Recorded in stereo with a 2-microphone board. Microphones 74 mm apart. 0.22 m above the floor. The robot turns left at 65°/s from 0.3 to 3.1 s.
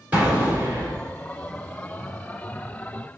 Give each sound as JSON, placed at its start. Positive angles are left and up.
{"t": 0.1, "sound": "an explosion", "azimuth_deg": -20, "distance_m": 1.8}